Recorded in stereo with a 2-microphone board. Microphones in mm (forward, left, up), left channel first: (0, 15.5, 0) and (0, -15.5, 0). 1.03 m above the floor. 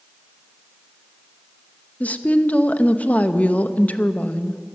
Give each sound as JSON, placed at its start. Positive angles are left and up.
{"t": 2.0, "sound": "a woman speaking", "side_deg": 50, "distance_m": 0.8}